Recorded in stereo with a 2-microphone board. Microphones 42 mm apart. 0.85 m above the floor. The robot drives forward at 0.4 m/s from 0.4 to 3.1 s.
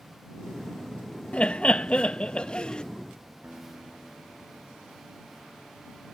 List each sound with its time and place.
1.3 s laughter: 35° left (ahead or behind); by 2.8 s 25° left (ahead or behind)
3.4 s a guitar: 35° right (ahead or behind)